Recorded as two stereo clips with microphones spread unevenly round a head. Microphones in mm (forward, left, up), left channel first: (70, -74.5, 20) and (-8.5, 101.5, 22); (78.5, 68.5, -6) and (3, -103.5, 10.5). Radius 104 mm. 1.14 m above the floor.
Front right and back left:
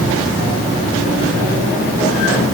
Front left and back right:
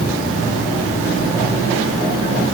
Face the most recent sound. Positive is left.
No sound to turn to.